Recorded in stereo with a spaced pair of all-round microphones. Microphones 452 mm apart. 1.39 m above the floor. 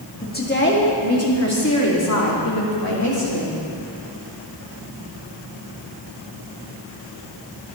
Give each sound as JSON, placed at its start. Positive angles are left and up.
{"t": 0.2, "sound": "a woman speaking", "side_deg": 20, "distance_m": 1.9}